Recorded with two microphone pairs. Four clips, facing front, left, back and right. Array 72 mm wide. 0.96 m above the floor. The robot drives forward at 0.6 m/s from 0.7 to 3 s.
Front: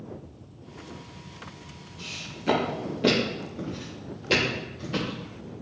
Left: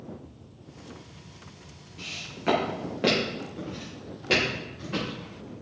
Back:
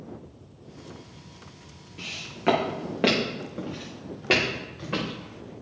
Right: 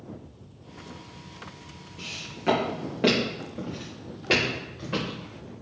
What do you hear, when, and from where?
2.0 s footsteps: 170° left, 5.5 m; by 5.5 s 160° right, 6.5 m